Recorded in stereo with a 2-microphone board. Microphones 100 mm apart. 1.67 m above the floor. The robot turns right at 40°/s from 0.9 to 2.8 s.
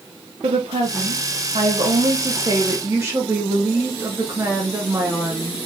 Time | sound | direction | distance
0.4 | a woman speaking | 105° right | 1.0 m